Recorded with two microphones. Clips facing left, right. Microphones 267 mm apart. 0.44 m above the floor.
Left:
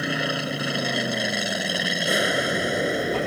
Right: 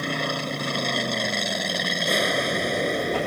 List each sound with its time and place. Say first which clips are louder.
0.0 s an aircraft: left 1 dB; 5° left (ahead or behind)